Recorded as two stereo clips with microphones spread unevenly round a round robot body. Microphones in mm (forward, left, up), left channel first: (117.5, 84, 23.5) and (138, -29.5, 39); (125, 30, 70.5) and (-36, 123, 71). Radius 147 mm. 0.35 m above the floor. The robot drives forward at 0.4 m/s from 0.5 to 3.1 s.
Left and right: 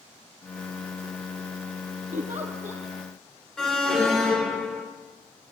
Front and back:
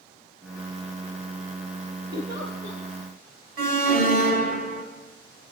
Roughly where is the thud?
I don't hear a thud.